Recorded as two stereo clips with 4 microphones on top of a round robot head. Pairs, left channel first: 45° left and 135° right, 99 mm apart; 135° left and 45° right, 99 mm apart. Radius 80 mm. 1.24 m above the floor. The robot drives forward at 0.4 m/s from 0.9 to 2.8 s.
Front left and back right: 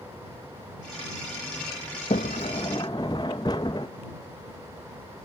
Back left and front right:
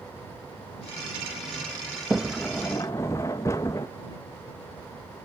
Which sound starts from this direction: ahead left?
A sliding door, at 2.1 s.